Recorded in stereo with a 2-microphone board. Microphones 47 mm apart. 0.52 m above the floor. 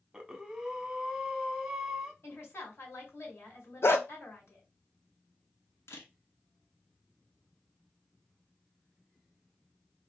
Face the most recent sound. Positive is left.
turn(degrees=75)  # may be behind; listen again after turning